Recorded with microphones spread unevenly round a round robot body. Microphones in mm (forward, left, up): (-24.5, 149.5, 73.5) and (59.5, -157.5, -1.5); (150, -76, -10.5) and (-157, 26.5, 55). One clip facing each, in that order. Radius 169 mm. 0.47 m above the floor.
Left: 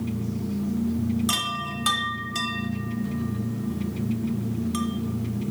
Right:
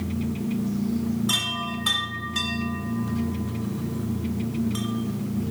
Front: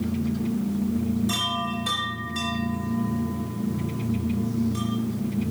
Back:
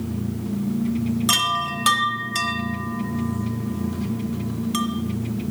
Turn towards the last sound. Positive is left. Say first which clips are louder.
# right 2 dB, front 1 dB
turn(degrees=160)